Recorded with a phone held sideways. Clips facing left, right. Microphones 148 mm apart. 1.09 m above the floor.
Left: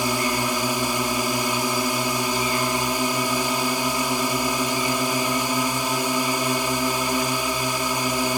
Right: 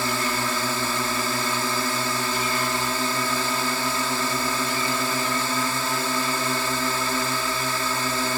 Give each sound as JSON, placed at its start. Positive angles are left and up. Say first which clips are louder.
{"t": 0.0, "sound": "a drone", "louder": "left 3 dB", "side_deg": 15}